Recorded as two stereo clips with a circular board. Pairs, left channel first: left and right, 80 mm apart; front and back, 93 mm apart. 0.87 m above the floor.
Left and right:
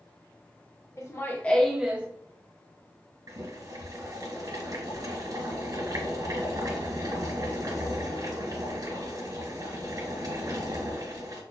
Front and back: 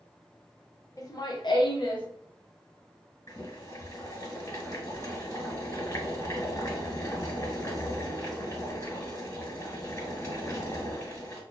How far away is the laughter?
About 0.9 m.